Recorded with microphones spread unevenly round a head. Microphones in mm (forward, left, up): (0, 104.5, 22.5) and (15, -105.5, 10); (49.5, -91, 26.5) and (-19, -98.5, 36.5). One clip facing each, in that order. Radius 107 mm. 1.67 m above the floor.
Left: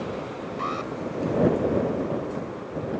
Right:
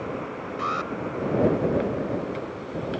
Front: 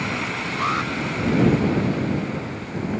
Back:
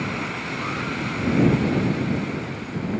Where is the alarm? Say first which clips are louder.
Even, front 6 dB; 10° right.